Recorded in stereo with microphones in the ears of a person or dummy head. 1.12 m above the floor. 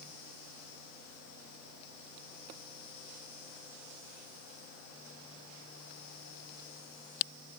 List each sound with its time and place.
Only background noise.